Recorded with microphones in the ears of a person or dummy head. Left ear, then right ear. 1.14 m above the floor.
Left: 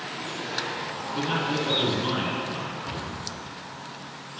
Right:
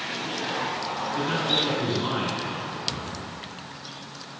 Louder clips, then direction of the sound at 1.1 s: Right 2 dB; 5° left (ahead or behind).